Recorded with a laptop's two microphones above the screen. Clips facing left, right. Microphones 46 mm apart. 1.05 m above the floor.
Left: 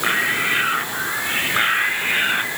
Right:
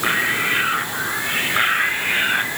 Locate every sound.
Only background noise.